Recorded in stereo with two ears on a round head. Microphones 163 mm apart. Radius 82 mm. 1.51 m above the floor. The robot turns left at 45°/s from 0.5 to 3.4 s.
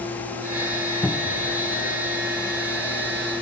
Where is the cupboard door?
5° left (ahead or behind), 0.8 m; by 1.5 s 15° right (ahead or behind), 0.8 m.